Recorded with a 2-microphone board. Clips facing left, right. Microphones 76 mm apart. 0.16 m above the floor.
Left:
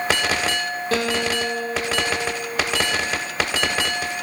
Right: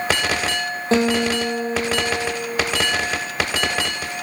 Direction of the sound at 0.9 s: 25° right (ahead or behind).